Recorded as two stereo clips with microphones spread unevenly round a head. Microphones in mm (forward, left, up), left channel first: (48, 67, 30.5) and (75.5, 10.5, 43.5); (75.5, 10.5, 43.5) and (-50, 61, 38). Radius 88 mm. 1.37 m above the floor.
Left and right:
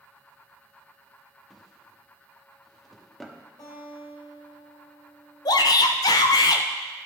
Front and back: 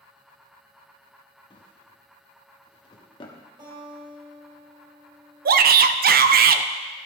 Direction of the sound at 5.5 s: 145° left.